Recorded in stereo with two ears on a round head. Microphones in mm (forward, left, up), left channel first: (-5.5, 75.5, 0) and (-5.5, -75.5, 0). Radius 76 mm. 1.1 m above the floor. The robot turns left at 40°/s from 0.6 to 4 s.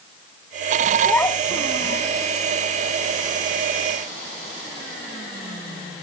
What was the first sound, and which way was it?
A child speaking, 175° left.